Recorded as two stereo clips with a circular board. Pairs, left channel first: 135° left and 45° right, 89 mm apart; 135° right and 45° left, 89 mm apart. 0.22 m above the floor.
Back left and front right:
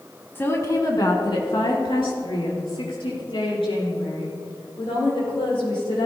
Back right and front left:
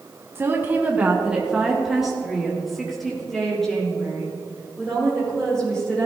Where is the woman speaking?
85° left, 1.2 m; by 6.1 s 140° left, 7.5 m.